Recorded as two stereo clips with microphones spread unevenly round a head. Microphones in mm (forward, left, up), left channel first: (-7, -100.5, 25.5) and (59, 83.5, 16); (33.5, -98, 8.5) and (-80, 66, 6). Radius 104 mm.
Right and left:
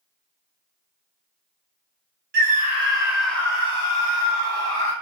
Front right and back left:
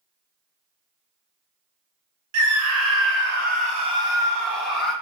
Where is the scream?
120° left, 0.9 m; by 4.9 s 145° right, 1.3 m.